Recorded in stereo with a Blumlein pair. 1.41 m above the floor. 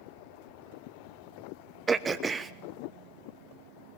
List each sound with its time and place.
1.9 s throat clearing: 15° right, 1.0 m